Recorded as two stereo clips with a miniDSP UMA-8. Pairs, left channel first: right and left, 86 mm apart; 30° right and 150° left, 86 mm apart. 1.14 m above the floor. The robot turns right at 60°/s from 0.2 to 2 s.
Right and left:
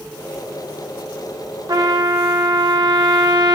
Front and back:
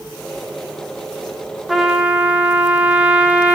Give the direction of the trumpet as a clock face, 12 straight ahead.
10 o'clock.